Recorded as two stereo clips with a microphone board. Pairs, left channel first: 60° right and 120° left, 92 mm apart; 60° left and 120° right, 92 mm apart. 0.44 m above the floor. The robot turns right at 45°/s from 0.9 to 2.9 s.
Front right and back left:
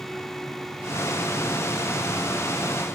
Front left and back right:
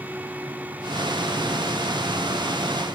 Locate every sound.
Only background noise.